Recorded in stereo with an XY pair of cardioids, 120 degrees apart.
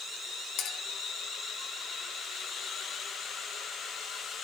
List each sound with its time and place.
0.6 s a clink: 65° left, 2.5 m